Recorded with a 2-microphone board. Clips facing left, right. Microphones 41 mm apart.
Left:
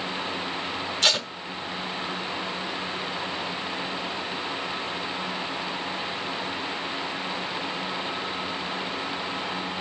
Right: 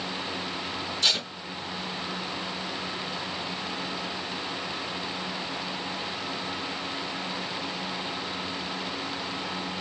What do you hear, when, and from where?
1.0 s tape being pulled: 65° left (ahead or behind), 1.6 m